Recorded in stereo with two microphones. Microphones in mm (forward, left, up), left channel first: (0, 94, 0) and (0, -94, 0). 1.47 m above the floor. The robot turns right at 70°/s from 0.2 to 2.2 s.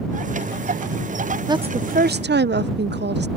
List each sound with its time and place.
1.5 s a woman speaking: 160° right; by 3.3 s 110° right